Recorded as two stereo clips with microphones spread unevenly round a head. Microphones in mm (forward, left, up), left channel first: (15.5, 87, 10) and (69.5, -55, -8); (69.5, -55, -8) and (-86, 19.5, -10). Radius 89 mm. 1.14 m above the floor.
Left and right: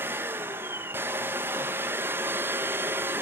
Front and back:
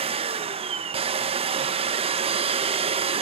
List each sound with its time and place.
0.0 s a machine running: 145° right, 0.8 m